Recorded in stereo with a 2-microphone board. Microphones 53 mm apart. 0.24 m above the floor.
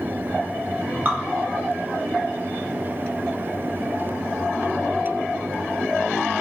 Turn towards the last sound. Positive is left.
turn(degrees=-35)  # may be behind; listen again after turning